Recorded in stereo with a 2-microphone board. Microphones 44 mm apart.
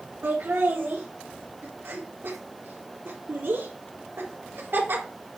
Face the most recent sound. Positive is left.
turn(degrees=-60)  # may be behind; listen again after turning